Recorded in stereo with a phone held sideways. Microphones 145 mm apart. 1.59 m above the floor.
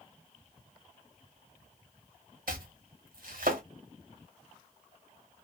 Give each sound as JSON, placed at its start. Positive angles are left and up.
{"t": 2.5, "sound": "chopping", "side_deg": -75, "distance_m": 1.0}